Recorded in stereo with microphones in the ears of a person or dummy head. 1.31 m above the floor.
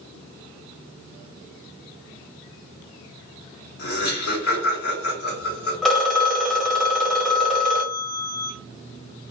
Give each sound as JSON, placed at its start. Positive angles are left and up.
{"t": 3.8, "sound": "laughter", "side_deg": 85, "distance_m": 3.0}
{"t": 5.8, "sound": "a phone ringing", "side_deg": 0, "distance_m": 1.3}